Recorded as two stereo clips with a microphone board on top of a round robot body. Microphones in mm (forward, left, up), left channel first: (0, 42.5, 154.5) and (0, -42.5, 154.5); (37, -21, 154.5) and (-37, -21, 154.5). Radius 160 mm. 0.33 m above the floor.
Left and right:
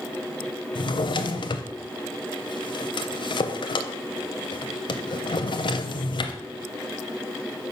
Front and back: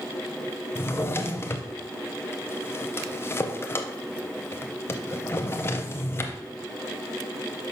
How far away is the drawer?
About 0.6 m.